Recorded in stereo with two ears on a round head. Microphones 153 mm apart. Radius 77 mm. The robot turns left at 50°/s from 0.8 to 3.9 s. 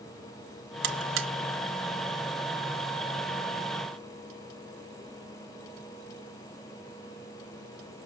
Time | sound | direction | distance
0.8 | a buzzer | 65° right (ahead or behind) | 0.7 m